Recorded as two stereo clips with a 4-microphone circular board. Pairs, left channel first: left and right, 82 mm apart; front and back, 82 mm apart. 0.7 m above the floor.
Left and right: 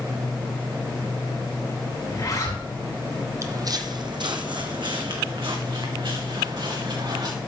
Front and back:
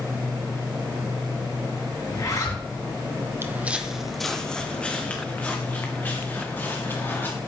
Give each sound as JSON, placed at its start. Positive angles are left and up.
{"t": 2.1, "sound": "a zipper", "azimuth_deg": 45, "distance_m": 3.5}
{"t": 3.4, "sound": "footsteps", "azimuth_deg": -130, "distance_m": 1.0}